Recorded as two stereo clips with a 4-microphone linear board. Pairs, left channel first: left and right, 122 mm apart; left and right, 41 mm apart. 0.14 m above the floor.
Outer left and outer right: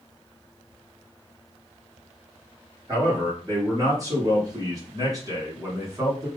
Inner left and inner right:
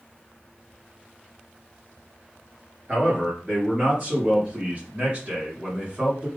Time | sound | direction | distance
2.9 | a man speaking | 30° right (ahead or behind) | 2.5 m